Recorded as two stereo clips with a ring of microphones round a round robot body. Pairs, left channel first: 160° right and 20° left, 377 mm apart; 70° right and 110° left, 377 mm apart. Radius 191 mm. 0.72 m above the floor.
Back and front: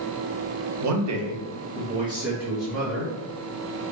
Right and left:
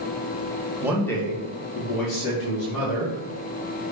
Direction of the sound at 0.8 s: 35° left.